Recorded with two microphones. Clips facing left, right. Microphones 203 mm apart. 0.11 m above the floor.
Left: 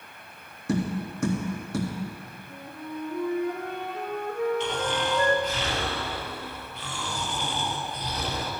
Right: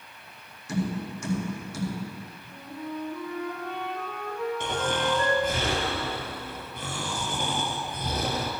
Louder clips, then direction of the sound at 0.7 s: Left 2 dB; 60° left (ahead or behind).